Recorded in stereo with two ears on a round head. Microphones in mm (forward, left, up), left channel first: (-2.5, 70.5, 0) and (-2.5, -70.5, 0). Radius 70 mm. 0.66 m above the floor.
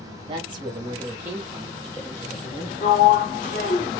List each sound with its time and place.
0.3 s a woman speaking: 35° right (ahead or behind), 1.4 m; by 3.0 s 35° left (ahead or behind), 1.1 m
2.8 s a sliding door: 60° left (ahead or behind), 1.0 m